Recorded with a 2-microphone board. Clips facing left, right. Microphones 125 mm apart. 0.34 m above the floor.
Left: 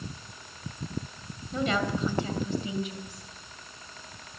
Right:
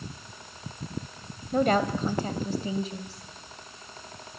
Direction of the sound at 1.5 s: 50° right (ahead or behind).